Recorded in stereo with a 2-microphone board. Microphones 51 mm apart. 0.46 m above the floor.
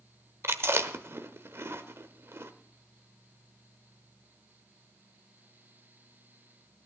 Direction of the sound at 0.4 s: 55° right (ahead or behind).